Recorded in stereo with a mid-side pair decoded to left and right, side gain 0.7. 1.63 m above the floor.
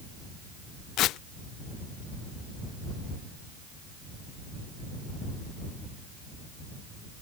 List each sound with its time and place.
1.0 s tearing paper: 55° left